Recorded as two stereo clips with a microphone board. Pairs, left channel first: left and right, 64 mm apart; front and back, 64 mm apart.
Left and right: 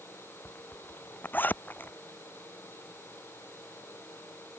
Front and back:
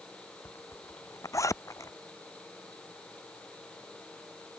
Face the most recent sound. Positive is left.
turn(degrees=30)